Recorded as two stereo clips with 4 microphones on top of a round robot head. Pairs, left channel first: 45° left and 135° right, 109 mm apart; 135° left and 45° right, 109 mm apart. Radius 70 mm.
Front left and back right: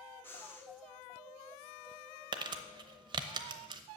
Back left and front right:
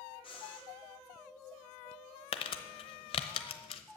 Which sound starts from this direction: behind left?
Breathing, at 0.2 s.